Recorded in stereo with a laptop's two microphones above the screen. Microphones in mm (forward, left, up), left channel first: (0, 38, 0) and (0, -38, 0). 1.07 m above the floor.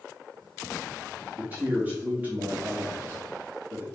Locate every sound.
1.4 s a man speaking: 25° right (ahead or behind), 2 m